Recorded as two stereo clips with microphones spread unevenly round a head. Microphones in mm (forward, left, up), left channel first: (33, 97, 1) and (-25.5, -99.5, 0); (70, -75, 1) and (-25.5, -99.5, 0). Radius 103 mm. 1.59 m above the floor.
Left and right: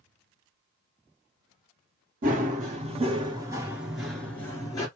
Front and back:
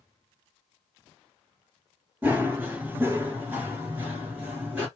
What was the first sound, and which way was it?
Running footsteps, 105° right.